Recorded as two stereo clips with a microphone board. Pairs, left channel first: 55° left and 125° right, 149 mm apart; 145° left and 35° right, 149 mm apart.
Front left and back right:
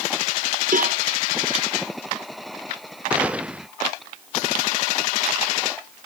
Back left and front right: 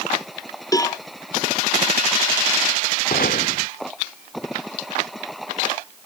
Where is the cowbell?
150° right.